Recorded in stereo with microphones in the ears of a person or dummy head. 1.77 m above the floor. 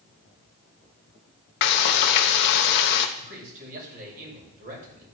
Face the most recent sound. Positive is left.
turn(degrees=-45)  # may be behind; listen again after turning